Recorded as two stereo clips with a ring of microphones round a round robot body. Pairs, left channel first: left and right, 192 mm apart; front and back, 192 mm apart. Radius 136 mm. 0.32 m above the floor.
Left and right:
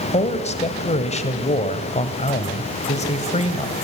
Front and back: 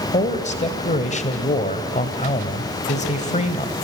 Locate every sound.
0.1 s a man speaking: 45° left, 1.6 m